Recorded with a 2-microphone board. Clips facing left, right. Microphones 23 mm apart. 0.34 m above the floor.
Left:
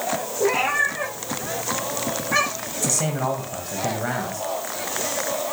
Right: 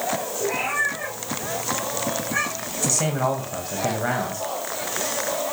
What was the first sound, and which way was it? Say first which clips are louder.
A cat meowing: left 4 dB; 45° left (ahead or behind).